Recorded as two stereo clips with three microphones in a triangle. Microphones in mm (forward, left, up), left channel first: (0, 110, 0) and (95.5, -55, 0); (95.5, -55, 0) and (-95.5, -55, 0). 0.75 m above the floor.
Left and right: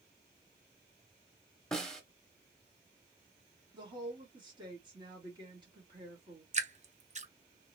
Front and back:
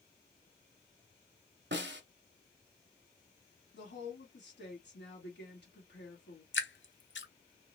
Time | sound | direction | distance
1.7 | a snare drum | 155° right | 0.7 m
3.7 | a woman speaking | 5° left | 2 m
6.5 | dripping | 5° right | 0.6 m